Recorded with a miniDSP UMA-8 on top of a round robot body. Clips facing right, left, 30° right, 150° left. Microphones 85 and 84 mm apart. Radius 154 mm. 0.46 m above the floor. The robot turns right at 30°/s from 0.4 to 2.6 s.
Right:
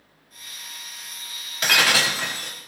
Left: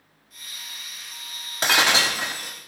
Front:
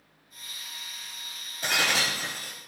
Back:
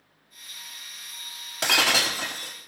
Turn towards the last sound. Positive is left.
turn(degrees=180)